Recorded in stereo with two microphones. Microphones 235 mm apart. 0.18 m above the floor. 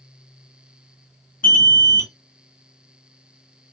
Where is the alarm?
35° left (ahead or behind), 2 m.